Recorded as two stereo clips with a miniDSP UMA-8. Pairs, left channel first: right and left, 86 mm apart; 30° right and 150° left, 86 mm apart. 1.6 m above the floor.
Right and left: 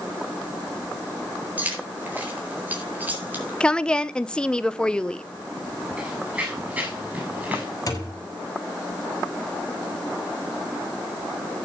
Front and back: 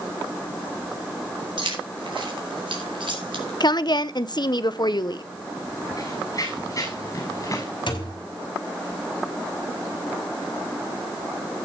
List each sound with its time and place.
1.6 s keys jangling: 160° left, 4 m
3.6 s a woman speaking: 15° right, 0.7 m
6.0 s running footsteps: 15° left, 7.5 m; by 7.7 s 20° left, 6.5 m
7.9 s a thud: 45° right, 4.5 m